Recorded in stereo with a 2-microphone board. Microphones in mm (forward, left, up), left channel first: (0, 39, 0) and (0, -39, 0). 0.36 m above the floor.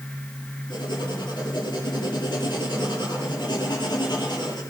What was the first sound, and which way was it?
Writing, 80° left.